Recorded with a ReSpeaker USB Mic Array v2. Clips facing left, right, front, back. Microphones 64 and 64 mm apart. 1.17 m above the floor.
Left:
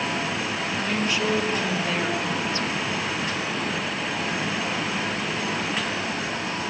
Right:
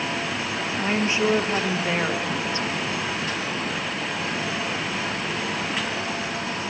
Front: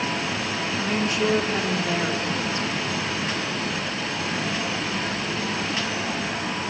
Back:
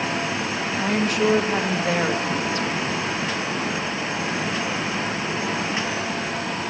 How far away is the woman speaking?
About 2 m.